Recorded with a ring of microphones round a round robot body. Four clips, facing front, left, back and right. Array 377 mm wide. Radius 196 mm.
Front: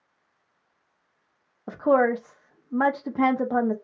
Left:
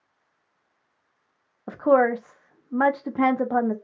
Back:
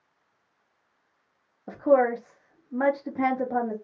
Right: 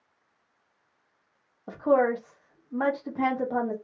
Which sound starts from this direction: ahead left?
A woman speaking, at 1.7 s.